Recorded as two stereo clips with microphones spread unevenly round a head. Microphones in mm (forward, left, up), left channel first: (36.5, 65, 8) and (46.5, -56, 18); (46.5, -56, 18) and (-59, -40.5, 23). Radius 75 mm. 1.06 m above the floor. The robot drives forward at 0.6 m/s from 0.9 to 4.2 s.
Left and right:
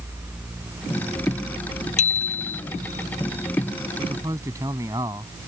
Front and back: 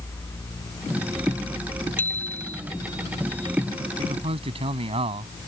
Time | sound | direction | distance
2.0 | a bicycle bell | 70° left | ?
4.0 | a man speaking | 155° right | ?